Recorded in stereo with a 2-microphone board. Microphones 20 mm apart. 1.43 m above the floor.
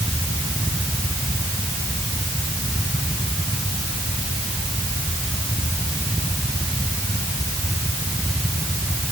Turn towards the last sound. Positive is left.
No sound to turn to.